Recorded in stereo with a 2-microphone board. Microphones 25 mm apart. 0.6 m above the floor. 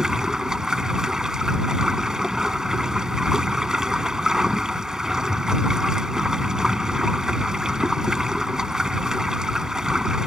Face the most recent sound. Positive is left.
turn(degrees=-25)  # may be behind; listen again after turning